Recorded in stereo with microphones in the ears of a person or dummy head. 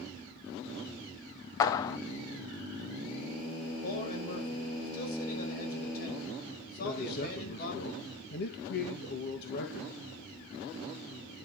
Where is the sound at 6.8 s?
60° left (ahead or behind), 2.0 m.